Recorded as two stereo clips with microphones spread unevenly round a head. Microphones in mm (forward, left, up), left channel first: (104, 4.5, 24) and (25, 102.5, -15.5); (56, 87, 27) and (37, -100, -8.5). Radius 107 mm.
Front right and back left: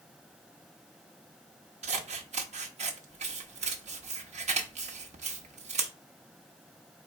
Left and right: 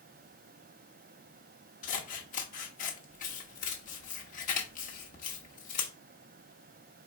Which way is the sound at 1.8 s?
95° left.